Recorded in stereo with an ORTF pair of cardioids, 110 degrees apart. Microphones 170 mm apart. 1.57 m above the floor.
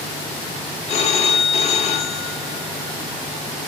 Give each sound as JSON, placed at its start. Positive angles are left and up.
{"t": 0.9, "sound": "a phone ringing", "azimuth_deg": 45, "distance_m": 1.5}